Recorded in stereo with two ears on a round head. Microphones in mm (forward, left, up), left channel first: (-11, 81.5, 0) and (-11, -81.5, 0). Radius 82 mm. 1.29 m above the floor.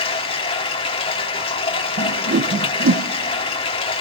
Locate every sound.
0.0 s running water: 30° left (ahead or behind), 1.5 m
2.0 s a whoosh: 55° right (ahead or behind), 0.7 m